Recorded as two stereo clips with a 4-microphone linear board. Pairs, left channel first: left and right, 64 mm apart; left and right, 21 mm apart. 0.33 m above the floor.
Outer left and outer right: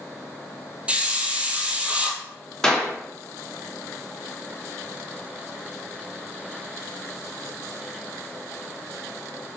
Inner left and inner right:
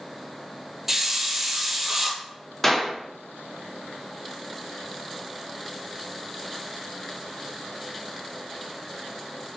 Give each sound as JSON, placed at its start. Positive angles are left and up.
{"t": 0.9, "sound": "a hiss", "side_deg": -20, "distance_m": 1.4}
{"t": 2.6, "sound": "a clap", "side_deg": 10, "distance_m": 3.0}